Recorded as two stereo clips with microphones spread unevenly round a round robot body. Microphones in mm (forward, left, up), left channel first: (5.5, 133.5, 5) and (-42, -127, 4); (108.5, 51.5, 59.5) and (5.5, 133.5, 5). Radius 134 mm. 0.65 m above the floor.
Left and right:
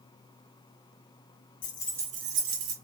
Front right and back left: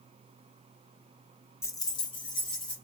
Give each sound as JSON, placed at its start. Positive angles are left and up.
{"t": 1.6, "sound": "keys jangling", "azimuth_deg": 55, "distance_m": 0.6}